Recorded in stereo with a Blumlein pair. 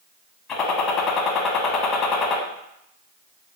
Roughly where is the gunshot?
Ahead left.